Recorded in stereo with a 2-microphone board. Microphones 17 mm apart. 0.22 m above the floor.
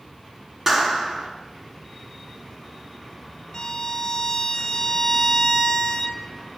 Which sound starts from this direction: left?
A violin, at 3.5 s.